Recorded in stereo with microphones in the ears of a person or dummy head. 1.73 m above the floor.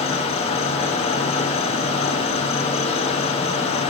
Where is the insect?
30° left (ahead or behind), 1.7 m.